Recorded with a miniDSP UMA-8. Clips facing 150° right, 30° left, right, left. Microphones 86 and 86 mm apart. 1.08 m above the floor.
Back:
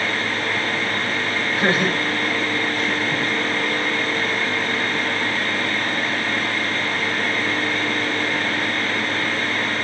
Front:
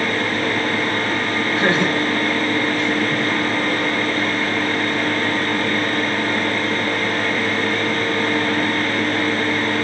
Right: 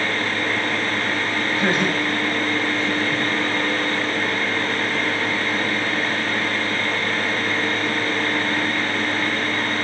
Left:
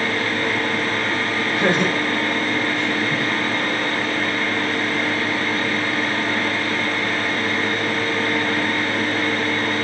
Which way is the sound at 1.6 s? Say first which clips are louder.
Front 2 dB, left 2 dB; 95° left.